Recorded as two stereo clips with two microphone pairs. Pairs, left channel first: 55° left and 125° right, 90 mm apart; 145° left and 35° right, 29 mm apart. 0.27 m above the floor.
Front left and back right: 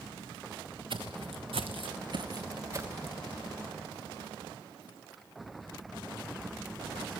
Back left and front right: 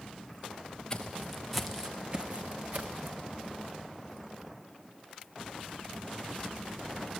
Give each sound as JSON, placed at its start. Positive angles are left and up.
{"t": 0.9, "sound": "footsteps", "azimuth_deg": -145, "distance_m": 1.3}